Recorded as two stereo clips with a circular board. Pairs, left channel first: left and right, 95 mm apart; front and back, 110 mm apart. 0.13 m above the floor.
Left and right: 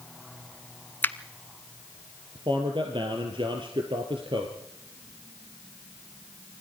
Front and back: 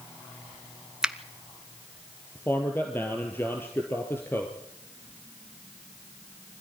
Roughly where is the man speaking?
Right.